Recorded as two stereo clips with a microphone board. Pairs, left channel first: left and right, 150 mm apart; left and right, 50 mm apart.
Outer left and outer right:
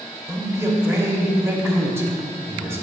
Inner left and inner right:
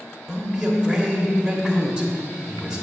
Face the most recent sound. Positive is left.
turn(degrees=-15)  # may be behind; listen again after turning